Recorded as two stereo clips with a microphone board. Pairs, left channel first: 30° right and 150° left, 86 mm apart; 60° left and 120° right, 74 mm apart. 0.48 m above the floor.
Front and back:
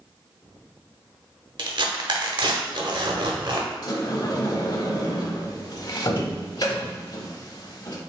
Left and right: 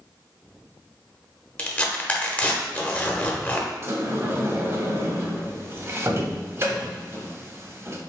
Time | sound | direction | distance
1.6 | tearing paper | 130° left | 0.7 m
3.8 | a sliding door | 70° right | 0.6 m